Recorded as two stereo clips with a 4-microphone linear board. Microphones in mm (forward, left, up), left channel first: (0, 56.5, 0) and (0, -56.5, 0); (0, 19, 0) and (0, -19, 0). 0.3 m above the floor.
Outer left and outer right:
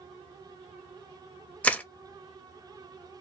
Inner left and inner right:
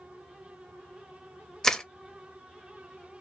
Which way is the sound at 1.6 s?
15° left (ahead or behind).